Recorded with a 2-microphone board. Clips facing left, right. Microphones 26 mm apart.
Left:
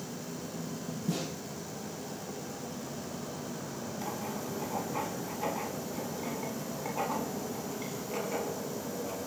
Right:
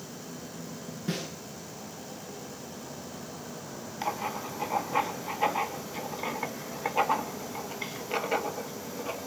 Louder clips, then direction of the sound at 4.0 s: Right 7 dB; 50° right (ahead or behind).